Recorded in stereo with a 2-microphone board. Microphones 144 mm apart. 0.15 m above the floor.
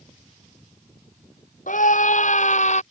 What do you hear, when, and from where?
1.7 s a scream: 70° left (ahead or behind); by 2.8 s 55° left (ahead or behind)